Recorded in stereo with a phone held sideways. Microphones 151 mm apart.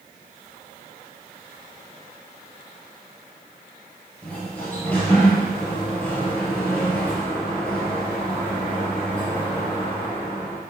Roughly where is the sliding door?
Centre.